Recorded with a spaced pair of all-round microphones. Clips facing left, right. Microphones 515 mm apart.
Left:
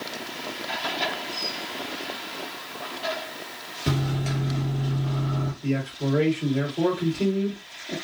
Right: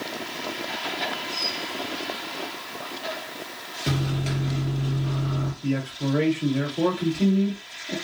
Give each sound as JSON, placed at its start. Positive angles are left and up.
{"t": 3.9, "sound": "a microwave", "side_deg": 20, "distance_m": 1.1}
{"t": 5.6, "sound": "a man speaking", "side_deg": -20, "distance_m": 2.5}